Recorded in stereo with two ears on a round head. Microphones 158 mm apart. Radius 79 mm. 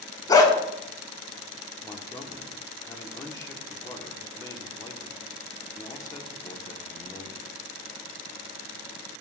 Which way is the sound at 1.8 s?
20° left (ahead or behind).